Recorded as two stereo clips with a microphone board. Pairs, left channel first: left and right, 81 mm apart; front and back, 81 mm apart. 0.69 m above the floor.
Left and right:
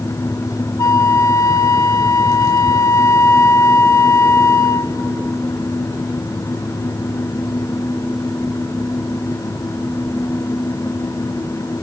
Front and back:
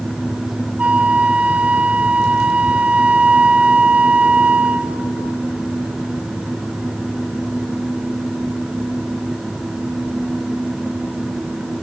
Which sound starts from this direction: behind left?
A flute, at 0.8 s.